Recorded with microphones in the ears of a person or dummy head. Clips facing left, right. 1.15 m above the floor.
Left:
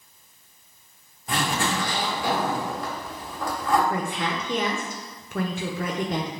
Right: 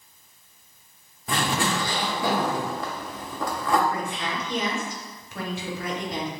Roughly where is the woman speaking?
Left.